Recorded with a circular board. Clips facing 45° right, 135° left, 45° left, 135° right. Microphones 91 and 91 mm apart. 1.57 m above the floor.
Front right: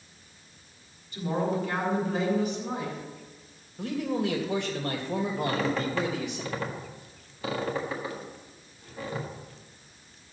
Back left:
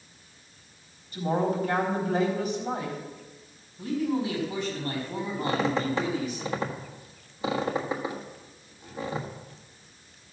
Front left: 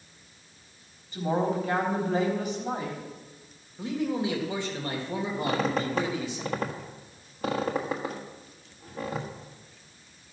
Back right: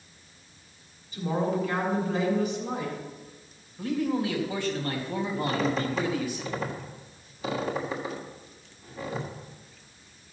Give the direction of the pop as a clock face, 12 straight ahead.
No pop in this recording.